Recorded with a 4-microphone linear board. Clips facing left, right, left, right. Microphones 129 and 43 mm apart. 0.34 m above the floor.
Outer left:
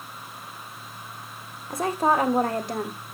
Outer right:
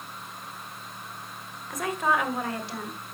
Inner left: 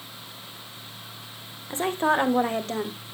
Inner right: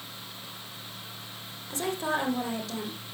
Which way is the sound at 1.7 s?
30° left (ahead or behind).